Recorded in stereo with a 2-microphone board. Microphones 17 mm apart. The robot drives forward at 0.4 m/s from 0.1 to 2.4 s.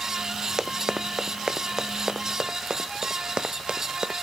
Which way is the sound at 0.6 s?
35° right (ahead or behind).